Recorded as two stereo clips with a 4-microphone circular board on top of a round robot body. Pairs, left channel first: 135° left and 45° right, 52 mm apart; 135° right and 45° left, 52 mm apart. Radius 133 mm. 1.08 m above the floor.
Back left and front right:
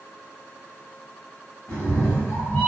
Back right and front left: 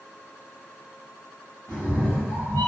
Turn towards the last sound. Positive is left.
turn(degrees=-160)